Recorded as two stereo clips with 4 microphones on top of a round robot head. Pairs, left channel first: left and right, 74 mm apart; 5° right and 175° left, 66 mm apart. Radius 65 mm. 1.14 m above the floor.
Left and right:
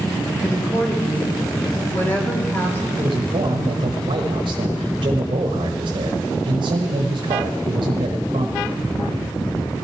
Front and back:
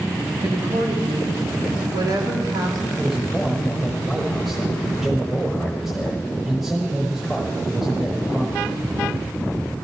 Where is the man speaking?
95° right, 1.0 m.